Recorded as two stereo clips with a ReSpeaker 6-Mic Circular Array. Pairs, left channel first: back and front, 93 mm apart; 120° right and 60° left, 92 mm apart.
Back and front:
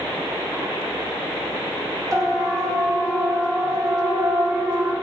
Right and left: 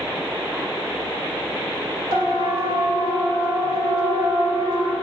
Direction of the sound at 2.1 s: 45° left.